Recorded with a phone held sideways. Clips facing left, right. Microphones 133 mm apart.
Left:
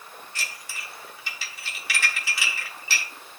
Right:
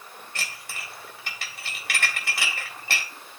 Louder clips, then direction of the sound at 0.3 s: Right 2 dB; 55° right (ahead or behind).